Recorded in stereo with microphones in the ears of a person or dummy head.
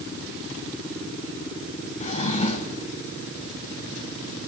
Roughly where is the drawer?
Left.